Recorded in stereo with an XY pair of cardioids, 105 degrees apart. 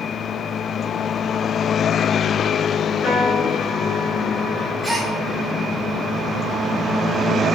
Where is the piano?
50° left, 7 m.